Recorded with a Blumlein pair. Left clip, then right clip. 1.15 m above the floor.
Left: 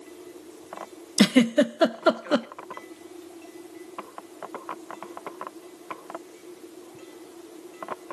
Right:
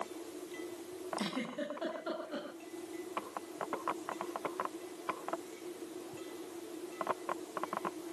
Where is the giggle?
50° left, 1.1 m.